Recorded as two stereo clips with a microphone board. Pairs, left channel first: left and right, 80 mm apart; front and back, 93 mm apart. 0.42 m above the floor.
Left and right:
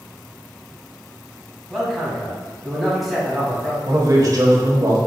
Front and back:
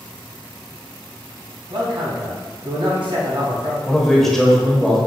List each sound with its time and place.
1.7 s a man speaking: straight behind, 2 m
3.9 s a man speaking: 85° right, 1.4 m